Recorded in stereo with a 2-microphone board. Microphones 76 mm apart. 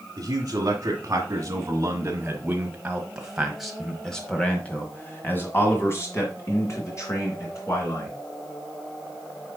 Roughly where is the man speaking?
Right.